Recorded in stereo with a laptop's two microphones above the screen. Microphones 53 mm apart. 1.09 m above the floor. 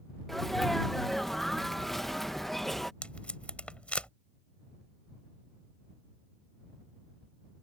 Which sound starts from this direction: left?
Tape being pulled, at 3.0 s.